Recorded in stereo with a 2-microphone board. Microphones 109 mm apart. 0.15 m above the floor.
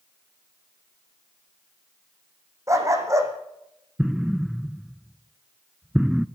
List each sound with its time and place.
2.7 s a dog barking: 25° right (ahead or behind), 3.5 m
4.0 s an explosion: 5° right (ahead or behind), 0.7 m